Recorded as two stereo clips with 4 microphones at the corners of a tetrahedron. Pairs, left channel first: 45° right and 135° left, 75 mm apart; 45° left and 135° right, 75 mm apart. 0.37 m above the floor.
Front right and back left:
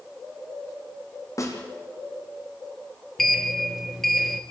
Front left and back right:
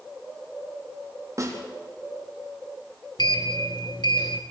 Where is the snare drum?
90° right, 3.5 m.